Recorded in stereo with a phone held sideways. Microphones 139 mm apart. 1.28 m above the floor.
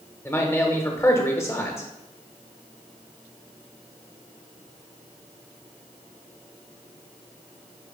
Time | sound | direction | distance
0.2 | a man speaking | 20° left (ahead or behind) | 1.4 m